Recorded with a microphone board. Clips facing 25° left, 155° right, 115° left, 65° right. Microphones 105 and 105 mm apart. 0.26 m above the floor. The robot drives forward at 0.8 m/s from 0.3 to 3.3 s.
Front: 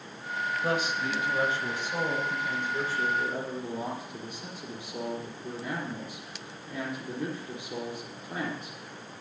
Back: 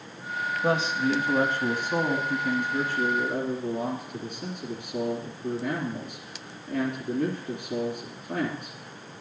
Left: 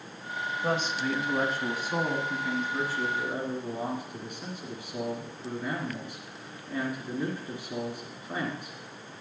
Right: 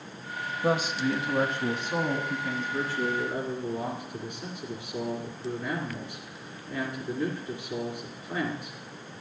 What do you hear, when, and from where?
0.6 s a man speaking: 130° right, 1.0 m; by 8.8 s 170° right, 2.5 m